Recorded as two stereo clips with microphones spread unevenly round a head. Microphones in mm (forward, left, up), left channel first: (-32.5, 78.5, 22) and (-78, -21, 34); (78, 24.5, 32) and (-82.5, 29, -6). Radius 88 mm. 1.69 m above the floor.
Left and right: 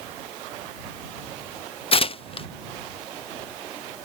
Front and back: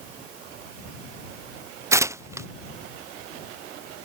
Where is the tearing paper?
105° left.